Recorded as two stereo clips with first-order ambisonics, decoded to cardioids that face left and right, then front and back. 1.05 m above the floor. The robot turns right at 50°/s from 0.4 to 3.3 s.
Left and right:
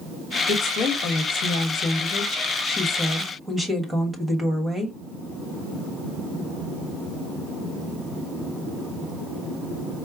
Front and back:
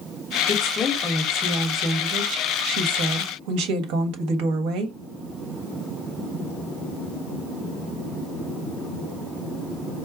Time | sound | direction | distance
0.5 | a woman speaking | 50° left | 1.1 m